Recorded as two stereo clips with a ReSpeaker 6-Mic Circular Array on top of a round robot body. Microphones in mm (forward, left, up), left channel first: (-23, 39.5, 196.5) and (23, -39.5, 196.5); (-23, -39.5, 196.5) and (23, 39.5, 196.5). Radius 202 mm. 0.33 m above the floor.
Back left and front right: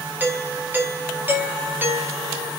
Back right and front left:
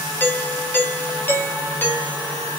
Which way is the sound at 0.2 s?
90° right.